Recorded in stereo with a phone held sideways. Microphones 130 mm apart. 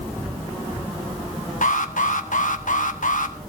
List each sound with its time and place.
1.6 s an alarm: 85° left, 1.4 m